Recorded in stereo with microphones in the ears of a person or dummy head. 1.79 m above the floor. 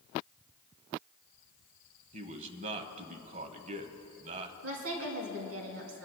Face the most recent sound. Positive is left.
turn(degrees=-85)